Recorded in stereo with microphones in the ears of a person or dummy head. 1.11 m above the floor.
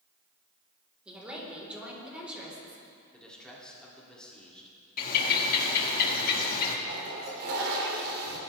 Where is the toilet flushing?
60° right (ahead or behind), 3 m.